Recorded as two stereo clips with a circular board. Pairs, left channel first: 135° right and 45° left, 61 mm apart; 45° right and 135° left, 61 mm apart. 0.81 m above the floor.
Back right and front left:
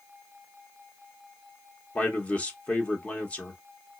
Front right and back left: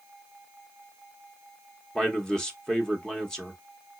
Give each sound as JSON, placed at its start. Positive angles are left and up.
{"t": 1.9, "sound": "a man speaking", "azimuth_deg": -110, "distance_m": 0.9}